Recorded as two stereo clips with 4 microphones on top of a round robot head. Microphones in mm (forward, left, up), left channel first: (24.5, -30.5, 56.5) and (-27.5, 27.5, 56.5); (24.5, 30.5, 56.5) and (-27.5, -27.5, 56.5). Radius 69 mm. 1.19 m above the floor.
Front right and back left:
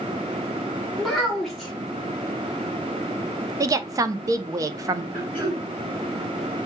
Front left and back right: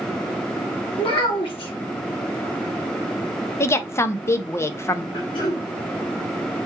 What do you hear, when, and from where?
1.0 s a child speaking: 40° left, 1.9 m
3.6 s a woman speaking: 95° left, 0.7 m
5.1 s throat clearing: 60° left, 3 m